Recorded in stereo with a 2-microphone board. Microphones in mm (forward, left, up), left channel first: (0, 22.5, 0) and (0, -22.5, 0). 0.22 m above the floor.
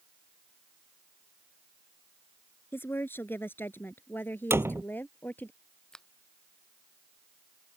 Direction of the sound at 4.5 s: 70° right (ahead or behind).